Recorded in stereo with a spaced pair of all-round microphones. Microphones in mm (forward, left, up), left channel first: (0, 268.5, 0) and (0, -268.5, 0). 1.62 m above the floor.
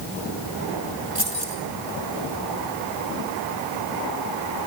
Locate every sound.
1.1 s keys jangling: 70° right (ahead or behind), 4 m